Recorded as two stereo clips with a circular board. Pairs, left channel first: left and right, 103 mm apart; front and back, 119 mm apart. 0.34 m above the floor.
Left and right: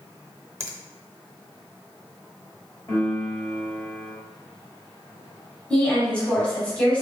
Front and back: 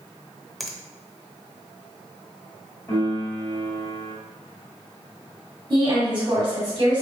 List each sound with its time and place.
0.6 s a finger snap: 90° right, 0.7 m
2.9 s a piano: 45° left, 1.7 m
5.7 s a woman speaking: 160° left, 1.9 m